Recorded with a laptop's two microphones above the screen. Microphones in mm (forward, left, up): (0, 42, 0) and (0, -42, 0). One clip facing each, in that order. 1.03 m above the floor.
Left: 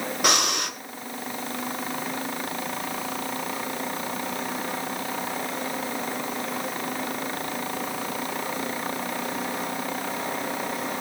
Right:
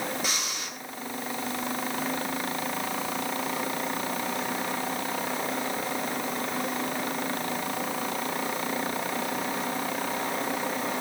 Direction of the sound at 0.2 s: 75° left (ahead or behind).